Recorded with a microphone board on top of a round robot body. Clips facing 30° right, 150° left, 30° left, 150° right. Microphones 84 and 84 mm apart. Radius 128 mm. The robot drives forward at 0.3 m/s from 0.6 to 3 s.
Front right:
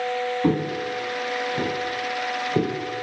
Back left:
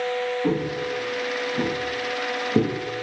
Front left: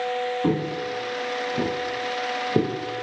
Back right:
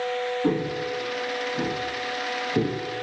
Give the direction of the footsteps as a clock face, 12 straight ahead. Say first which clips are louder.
Front right 1 dB, even; 12 o'clock.